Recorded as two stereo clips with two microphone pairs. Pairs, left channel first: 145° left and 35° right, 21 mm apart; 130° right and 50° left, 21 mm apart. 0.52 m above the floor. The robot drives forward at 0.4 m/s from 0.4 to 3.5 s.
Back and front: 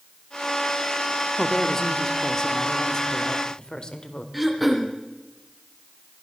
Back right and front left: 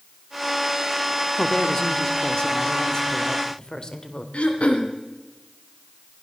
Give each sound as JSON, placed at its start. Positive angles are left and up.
{"t": 1.4, "sound": "a woman speaking", "azimuth_deg": -155, "distance_m": 1.2}
{"t": 4.3, "sound": "throat clearing", "azimuth_deg": -120, "distance_m": 2.0}